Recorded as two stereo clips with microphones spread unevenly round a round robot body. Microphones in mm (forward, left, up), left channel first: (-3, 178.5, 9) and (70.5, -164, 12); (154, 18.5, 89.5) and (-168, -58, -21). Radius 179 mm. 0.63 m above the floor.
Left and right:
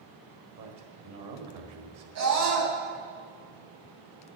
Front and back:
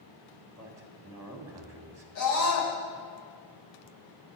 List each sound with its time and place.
0.6 s a man speaking: 105° right, 1.7 m
2.1 s a scream: 30° right, 3.5 m